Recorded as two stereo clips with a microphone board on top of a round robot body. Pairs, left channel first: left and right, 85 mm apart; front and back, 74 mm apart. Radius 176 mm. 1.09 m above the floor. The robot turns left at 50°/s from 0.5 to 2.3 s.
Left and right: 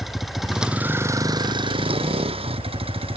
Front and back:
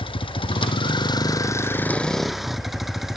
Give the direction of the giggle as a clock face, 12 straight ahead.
No giggle in this recording.